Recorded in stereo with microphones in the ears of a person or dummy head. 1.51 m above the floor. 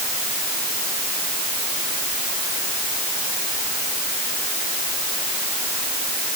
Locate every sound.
Only background noise.